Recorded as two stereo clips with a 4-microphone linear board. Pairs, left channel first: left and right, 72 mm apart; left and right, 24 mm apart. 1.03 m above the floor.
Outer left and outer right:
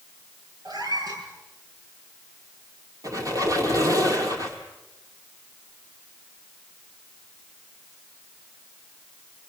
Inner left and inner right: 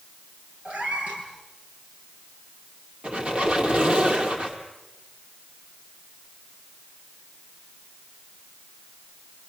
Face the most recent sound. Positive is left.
turn(degrees=-55)  # may be behind; listen again after turning